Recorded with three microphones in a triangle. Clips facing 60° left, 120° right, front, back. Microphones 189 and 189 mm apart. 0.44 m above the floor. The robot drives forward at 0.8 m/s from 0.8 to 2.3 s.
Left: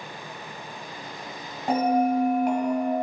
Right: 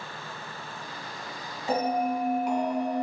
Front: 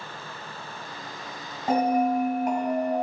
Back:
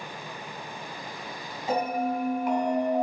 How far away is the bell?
About 2 m.